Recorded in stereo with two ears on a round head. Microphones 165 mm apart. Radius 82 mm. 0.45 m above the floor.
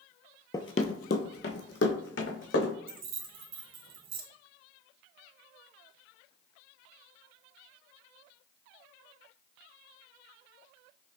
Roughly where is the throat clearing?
I don't hear throat clearing.